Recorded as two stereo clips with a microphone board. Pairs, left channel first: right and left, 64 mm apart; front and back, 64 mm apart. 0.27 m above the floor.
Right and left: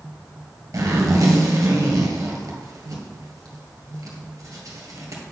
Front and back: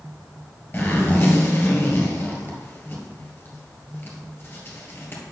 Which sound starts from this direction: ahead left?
A zipper, at 0.7 s.